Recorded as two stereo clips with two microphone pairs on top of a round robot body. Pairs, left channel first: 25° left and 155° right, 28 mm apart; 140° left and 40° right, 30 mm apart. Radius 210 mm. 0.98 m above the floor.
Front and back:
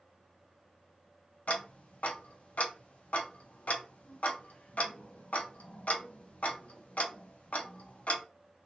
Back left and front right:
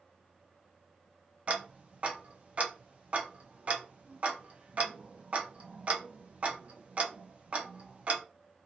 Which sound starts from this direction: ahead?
Ticking, at 1.5 s.